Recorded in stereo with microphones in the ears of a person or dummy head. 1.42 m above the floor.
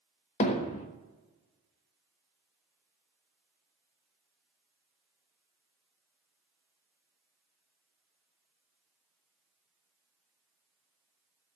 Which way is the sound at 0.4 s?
35° left (ahead or behind).